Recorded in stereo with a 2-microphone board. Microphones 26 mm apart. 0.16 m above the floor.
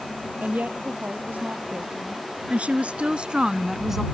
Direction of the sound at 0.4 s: 75° right (ahead or behind).